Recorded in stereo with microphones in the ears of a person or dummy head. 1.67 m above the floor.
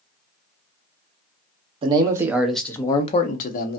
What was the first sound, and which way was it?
A man speaking, 25° right (ahead or behind).